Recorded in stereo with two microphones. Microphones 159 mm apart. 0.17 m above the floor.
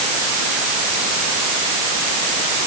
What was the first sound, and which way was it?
Only background noise.